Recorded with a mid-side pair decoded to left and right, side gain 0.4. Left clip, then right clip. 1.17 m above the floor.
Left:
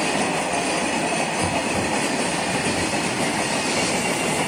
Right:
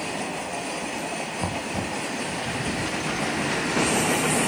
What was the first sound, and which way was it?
Knocking, 10° left.